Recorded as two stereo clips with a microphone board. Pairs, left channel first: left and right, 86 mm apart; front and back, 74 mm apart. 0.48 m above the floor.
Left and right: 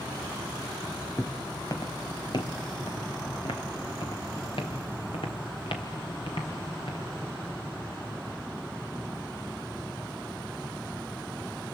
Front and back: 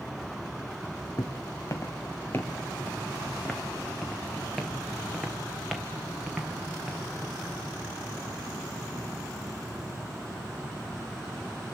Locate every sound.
1.2 s footsteps: 25° left, 1.1 m; by 7.1 s 100° left, 3.5 m